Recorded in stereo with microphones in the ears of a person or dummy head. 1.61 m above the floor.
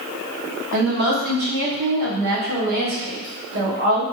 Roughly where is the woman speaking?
Right.